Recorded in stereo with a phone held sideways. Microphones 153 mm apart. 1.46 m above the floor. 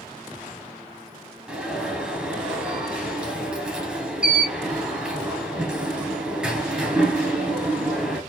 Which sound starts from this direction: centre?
An alarm, at 1.5 s.